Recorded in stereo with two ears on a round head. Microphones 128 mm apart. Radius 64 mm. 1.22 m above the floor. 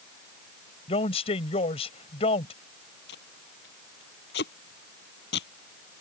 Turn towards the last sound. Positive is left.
turn(degrees=85)